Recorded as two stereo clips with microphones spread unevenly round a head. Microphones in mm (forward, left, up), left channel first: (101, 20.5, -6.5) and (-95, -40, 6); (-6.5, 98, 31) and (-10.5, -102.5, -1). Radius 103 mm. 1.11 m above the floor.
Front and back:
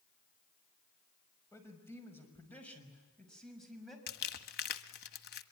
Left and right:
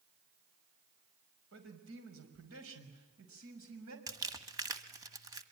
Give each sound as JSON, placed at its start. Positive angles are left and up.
{"t": 1.5, "sound": "a man speaking", "azimuth_deg": -60, "distance_m": 5.5}
{"t": 4.1, "sound": "crumpling", "azimuth_deg": -15, "distance_m": 1.4}